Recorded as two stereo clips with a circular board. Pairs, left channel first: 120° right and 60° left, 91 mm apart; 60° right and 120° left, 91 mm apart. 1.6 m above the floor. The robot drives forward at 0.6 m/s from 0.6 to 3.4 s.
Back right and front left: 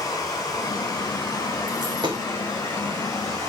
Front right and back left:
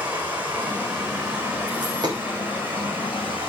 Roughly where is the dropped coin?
Left.